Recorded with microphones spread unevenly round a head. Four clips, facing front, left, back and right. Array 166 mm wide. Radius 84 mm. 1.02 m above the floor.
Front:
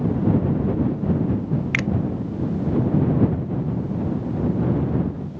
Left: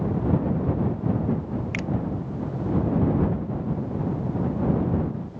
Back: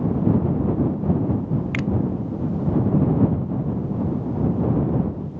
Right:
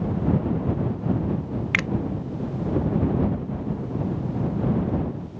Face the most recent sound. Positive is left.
turn(degrees=-65)